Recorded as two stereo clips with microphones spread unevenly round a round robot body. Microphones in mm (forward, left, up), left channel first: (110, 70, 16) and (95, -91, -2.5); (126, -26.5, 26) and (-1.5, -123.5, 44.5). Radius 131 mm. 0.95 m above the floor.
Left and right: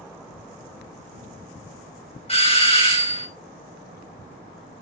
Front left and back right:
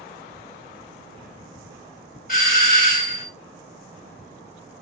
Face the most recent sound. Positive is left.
turn(degrees=30)